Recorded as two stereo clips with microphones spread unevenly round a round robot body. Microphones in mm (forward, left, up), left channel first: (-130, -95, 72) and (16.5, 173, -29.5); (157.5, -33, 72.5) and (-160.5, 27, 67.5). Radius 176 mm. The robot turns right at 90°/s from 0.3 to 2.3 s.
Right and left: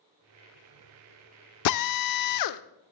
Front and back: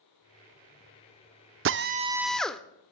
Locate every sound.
1.6 s a drill: 160° right, 0.6 m; by 2.6 s 100° right, 0.6 m